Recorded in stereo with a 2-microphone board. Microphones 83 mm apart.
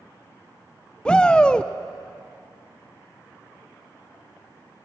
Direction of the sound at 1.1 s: 10° left (ahead or behind).